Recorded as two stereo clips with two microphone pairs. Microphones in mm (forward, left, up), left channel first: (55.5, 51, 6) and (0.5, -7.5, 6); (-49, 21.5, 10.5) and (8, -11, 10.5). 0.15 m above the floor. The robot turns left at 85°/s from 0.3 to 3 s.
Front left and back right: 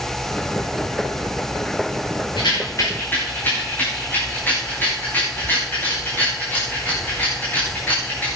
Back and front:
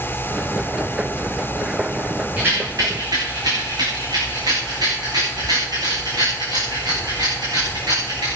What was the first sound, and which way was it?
A rattle, 35° left.